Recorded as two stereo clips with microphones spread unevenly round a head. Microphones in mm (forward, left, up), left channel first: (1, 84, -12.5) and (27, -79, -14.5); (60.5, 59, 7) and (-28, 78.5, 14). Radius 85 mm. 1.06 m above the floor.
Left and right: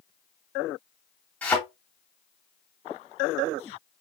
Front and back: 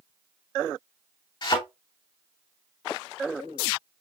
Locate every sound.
1.4 s a thud: 20° left, 2.5 m